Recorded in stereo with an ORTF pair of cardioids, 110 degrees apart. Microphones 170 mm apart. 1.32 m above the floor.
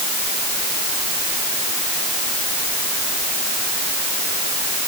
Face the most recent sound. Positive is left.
No sound to turn to.